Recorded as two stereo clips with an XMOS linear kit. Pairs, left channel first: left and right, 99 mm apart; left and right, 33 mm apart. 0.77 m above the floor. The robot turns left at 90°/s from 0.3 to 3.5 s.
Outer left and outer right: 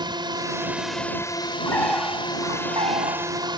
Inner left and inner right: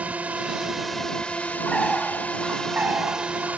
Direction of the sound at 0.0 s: 125° right.